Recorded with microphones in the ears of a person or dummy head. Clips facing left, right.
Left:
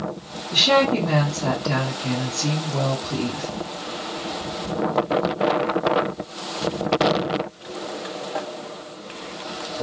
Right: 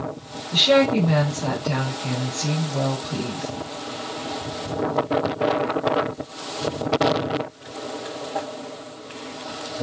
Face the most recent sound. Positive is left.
turn(degrees=10)  # may be behind; listen again after turning